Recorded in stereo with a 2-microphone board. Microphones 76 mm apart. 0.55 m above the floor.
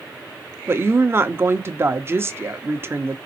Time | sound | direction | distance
0.7 | a woman speaking | 30° right (ahead or behind) | 0.8 m